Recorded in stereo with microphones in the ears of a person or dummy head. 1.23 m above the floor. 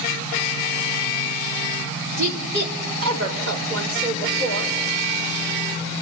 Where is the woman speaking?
50° right (ahead or behind), 3 m; by 4.8 s 85° right, 5 m.